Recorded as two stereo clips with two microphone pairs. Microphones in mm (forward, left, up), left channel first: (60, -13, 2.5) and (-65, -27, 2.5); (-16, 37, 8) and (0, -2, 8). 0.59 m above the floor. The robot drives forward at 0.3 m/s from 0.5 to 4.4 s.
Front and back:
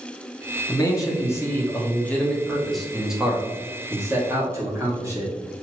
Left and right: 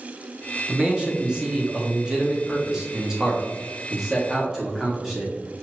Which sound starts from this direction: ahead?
A man speaking, at 0.7 s.